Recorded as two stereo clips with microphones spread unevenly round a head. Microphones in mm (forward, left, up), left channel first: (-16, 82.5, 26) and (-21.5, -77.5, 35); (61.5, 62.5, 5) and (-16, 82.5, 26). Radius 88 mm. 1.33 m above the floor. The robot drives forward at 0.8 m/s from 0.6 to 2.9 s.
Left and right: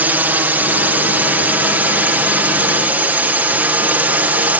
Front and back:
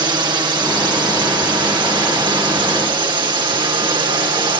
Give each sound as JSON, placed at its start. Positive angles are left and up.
{"t": 0.0, "sound": "a drone", "azimuth_deg": -170}